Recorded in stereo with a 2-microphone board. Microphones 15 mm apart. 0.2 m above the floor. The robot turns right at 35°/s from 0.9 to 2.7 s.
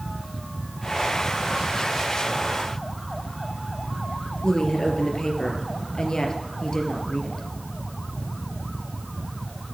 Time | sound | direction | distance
4.4 | a woman speaking | 65° left (ahead or behind) | 3.5 m